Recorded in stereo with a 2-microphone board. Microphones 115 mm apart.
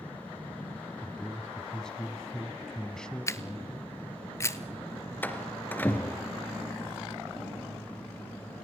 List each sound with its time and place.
1.0 s a man speaking: 5° left (ahead or behind), 1.3 m
3.3 s a camera shutter: 25° left (ahead or behind), 1.0 m
5.2 s a door slam: 15° left (ahead or behind), 2 m